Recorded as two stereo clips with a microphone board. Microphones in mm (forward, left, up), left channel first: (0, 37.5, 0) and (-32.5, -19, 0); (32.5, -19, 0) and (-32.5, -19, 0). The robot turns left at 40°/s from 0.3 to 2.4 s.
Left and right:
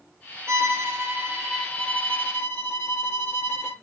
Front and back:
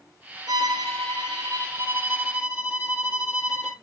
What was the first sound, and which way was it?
A violin, 170° right.